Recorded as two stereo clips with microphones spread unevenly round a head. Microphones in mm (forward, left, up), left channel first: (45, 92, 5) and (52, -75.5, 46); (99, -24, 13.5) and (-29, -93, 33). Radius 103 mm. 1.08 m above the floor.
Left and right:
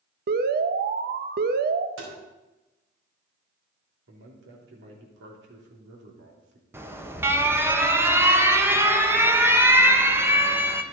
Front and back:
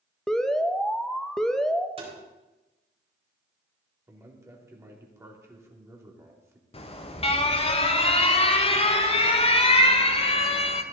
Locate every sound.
0.3 s an alarm: 60° right, 0.8 m
2.0 s tapping: 105° right, 4.5 m
4.1 s a man speaking: 80° right, 3 m
6.7 s an alarm: 5° right, 1.5 m